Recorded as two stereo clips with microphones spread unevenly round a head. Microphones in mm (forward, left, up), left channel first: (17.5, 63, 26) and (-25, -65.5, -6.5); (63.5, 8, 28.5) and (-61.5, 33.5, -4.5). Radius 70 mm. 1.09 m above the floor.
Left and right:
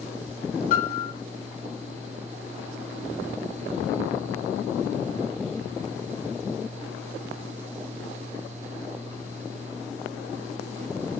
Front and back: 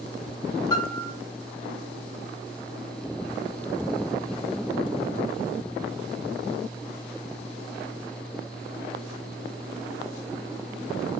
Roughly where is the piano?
Ahead left.